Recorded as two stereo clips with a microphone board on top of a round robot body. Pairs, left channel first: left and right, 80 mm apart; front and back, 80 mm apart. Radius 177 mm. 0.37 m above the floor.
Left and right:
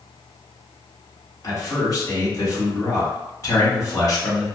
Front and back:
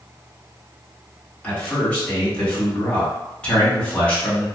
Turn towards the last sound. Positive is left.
turn(degrees=70)